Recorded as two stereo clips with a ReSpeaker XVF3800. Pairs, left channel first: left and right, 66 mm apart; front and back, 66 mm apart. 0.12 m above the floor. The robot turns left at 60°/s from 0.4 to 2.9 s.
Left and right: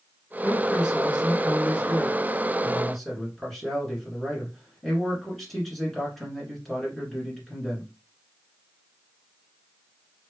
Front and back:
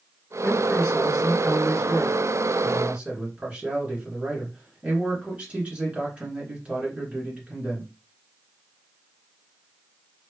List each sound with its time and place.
0.4 s a man speaking: 40° right, 1.6 m; by 7.9 s 175° left, 1.6 m